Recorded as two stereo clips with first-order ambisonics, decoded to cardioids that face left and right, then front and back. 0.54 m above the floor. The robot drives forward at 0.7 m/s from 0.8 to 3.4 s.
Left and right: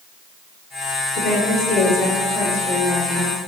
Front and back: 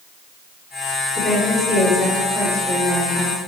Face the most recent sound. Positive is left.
turn(degrees=145)